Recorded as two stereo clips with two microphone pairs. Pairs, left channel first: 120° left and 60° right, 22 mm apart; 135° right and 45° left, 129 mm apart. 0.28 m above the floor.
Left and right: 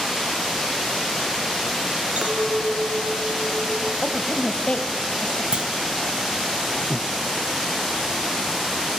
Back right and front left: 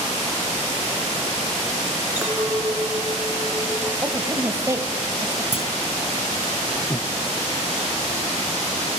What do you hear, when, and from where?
2.2 s a clink: 35° right, 3.5 m
4.0 s a woman speaking: 100° left, 1.7 m
5.5 s a clunk: 105° right, 1.9 m
6.9 s breathing: 170° left, 0.7 m